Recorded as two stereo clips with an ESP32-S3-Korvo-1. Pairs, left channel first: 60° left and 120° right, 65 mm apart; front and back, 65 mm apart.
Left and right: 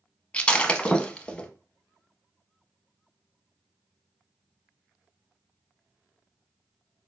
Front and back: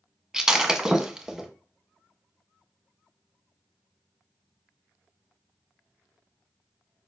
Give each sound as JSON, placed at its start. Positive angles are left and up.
{"t": 0.3, "sound": "breaking glass", "azimuth_deg": 110, "distance_m": 0.6}